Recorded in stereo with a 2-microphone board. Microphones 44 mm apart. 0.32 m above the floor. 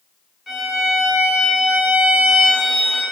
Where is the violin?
5° right (ahead or behind), 2.5 m.